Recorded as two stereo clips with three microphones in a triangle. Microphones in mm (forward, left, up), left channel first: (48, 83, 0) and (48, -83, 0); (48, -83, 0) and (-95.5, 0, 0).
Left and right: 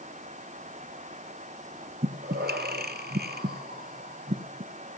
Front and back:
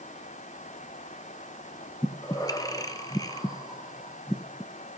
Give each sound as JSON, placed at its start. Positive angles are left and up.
{"t": 2.0, "sound": "breathing", "azimuth_deg": -100, "distance_m": 1.4}